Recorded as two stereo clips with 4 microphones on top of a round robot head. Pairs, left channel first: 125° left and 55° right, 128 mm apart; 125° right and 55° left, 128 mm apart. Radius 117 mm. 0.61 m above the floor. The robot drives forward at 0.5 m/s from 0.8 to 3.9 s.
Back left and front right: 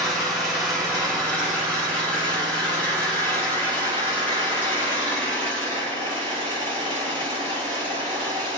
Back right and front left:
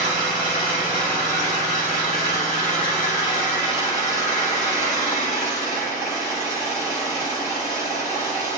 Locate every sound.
0.0 s an engine running: 145° right, 1.6 m; by 8.6 s 165° right, 3 m